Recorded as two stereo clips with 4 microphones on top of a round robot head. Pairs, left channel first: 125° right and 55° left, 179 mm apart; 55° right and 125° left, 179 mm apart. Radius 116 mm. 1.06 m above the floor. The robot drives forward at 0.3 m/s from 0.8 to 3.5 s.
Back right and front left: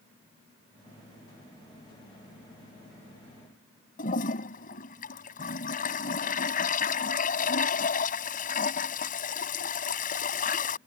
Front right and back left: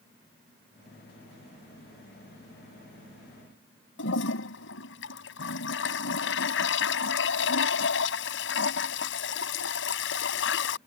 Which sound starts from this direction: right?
A toilet flushing, at 4.0 s.